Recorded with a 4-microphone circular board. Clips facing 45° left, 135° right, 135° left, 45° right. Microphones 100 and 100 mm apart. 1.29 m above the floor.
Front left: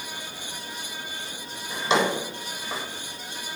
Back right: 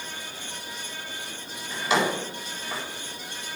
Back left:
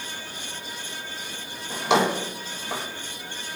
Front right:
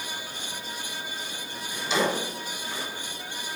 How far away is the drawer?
About 4 m.